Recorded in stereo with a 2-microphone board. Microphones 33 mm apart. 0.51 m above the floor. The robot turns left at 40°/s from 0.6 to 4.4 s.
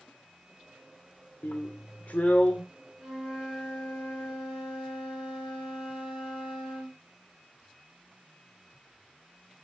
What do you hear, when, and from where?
1.4 s a drill: 95° left, 0.5 m; by 2.6 s 45° left, 0.5 m
3.0 s a flute: 10° right, 3.5 m; by 7.0 s 65° right, 3.5 m